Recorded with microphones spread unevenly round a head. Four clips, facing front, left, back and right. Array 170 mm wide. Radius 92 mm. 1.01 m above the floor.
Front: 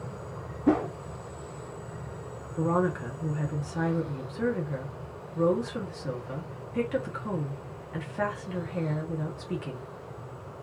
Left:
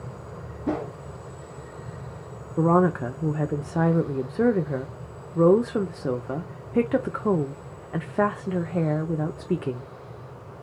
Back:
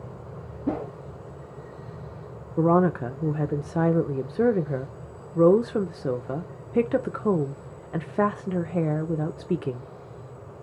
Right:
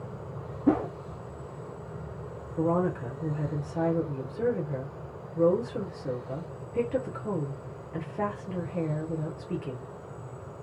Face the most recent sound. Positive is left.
turn(degrees=130)